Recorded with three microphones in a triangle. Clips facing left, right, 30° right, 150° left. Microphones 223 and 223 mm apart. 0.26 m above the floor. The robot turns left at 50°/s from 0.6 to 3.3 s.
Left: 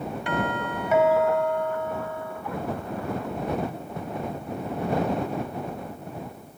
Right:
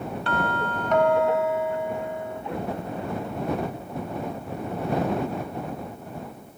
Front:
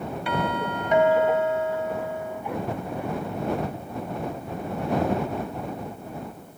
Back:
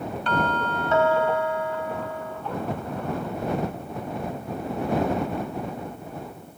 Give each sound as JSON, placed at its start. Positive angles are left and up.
{"t": 0.3, "sound": "a doorbell", "azimuth_deg": 35}